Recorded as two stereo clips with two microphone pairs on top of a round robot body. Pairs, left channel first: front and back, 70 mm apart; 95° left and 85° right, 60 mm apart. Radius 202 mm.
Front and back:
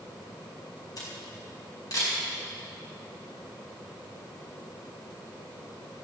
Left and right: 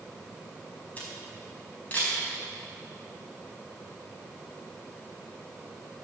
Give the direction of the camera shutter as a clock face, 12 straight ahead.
11 o'clock.